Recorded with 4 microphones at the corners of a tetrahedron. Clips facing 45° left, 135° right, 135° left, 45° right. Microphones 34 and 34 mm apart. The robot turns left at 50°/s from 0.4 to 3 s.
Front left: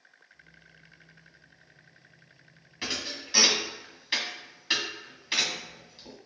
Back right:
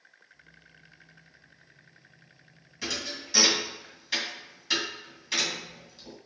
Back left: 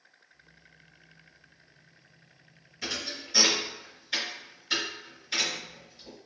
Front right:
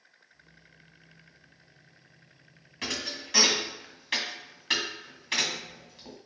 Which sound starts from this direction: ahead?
A thud, at 2.8 s.